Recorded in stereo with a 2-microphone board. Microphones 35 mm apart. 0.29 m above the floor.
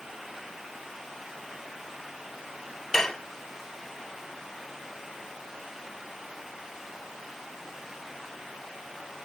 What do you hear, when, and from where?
2.9 s dishes clattering: 10° left (ahead or behind), 0.9 m